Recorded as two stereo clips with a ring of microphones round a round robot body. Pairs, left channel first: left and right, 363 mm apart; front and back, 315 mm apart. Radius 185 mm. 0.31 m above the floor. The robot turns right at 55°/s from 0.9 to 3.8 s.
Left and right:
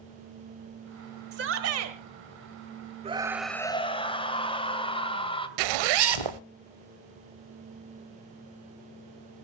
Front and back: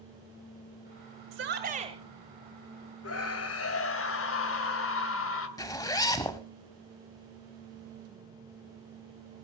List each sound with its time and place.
1.3 s a shout: 145° right, 1.7 m; by 2.0 s 110° right, 1.7 m
3.0 s a scream: 20° right, 2 m; by 5.5 s 20° left, 2 m
5.6 s a zipper: 80° right, 0.6 m